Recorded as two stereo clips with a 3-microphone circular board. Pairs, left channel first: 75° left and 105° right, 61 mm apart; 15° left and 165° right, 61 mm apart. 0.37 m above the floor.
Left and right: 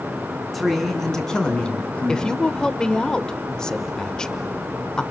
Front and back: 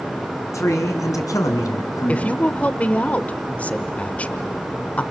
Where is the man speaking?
15° right, 3.5 m; by 2.3 s 15° left, 3.5 m.